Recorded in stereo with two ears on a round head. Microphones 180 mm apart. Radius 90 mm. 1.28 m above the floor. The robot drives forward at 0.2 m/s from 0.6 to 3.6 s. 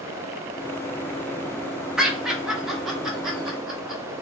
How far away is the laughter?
About 0.7 m.